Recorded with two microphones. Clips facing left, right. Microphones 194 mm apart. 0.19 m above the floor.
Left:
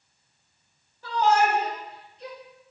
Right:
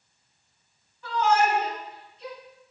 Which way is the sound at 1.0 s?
40° left (ahead or behind).